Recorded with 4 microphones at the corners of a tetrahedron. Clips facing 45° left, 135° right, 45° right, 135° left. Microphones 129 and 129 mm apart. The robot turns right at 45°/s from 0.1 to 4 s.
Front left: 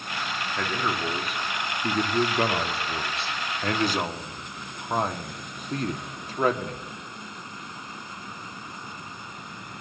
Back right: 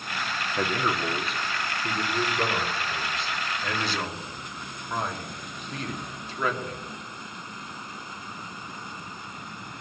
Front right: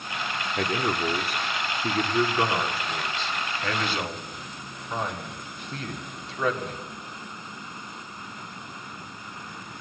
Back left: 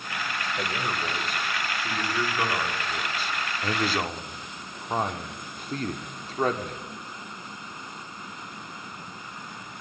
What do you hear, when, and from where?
0.6 s a man speaking: 65° right, 2.5 m; by 6.8 s 90° left, 2.5 m